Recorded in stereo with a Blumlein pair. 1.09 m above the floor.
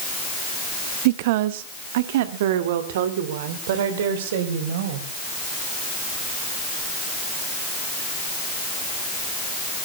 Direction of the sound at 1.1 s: 50° right.